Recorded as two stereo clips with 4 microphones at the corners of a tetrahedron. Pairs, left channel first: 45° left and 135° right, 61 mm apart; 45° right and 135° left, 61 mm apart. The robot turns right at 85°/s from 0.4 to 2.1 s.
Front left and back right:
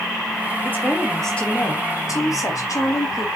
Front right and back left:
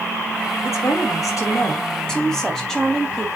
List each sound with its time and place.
0.6 s a woman speaking: 90° right, 4.5 m; by 3.3 s 35° left, 4.5 m